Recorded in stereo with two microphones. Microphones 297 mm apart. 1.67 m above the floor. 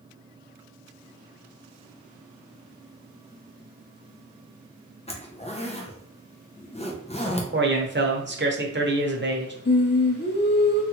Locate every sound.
5.1 s a zipper: 20° left (ahead or behind), 0.6 m
7.5 s a man speaking: 40° right (ahead or behind), 0.7 m
9.7 s singing: 35° left (ahead or behind), 0.5 m